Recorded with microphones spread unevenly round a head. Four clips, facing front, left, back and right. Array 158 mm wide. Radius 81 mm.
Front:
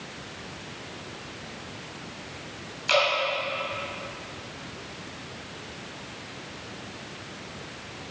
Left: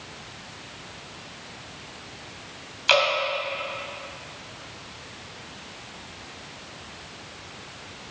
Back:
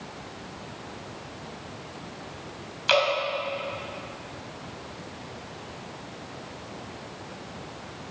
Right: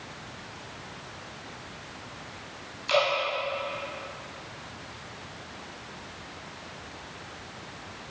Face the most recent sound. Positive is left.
turn(degrees=100)